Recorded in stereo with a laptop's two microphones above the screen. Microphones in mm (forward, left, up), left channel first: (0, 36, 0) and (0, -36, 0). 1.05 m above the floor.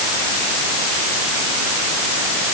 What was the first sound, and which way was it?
Only background noise.